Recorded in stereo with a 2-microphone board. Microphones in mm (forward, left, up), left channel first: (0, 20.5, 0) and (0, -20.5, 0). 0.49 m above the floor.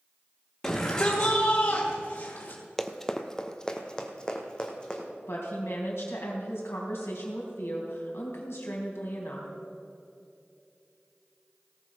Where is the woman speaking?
75° left (ahead or behind), 3.5 m.